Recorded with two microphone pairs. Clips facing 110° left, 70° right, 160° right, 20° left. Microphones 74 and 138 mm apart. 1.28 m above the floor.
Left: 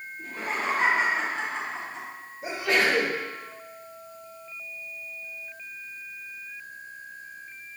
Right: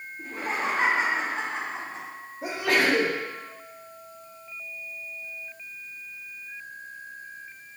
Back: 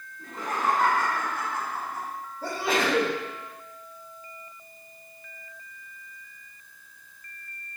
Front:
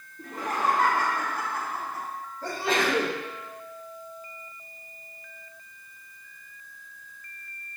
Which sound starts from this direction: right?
A sneeze, at 2.4 s.